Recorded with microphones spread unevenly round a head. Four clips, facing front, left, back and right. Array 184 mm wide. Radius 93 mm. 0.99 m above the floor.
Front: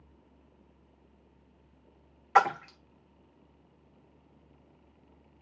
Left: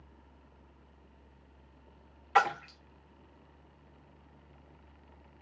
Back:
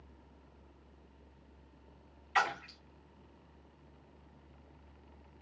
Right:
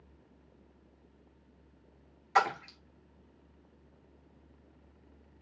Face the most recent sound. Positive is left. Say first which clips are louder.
# left 1 dB, front 9 dB
turn(degrees=15)